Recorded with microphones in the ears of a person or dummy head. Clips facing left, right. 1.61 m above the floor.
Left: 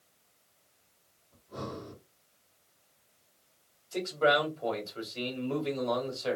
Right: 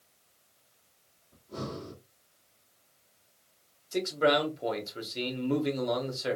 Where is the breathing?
50° right (ahead or behind), 2 m.